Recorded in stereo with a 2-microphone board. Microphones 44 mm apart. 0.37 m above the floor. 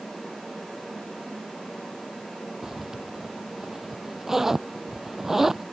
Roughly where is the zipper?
Centre.